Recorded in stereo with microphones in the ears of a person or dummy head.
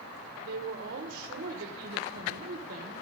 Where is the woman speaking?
50° right (ahead or behind), 1.1 m.